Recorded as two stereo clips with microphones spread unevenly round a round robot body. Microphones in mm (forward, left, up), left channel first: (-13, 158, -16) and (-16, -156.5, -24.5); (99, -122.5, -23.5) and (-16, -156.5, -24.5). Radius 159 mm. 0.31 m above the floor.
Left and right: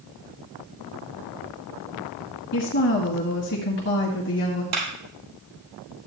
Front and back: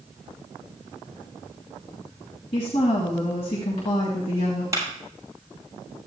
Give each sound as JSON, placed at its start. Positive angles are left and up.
{"t": 2.5, "sound": "a woman speaking", "azimuth_deg": 40, "distance_m": 1.6}
{"t": 4.7, "sound": "a clap", "azimuth_deg": -100, "distance_m": 5.0}